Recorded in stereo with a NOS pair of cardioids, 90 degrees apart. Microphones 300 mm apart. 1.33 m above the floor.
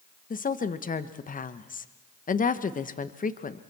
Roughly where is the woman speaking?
Ahead left.